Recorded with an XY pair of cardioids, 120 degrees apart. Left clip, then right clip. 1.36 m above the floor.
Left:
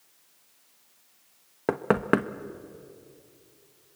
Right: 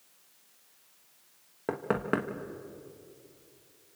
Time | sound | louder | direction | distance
1.7 | knocking | left 6 dB | 35° left | 1.2 m